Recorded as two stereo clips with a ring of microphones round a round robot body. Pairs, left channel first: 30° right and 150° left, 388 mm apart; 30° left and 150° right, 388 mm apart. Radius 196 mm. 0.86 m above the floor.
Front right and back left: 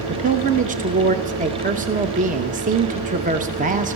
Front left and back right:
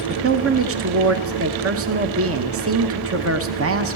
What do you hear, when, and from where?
0.1 s a woman speaking: 155° right, 0.9 m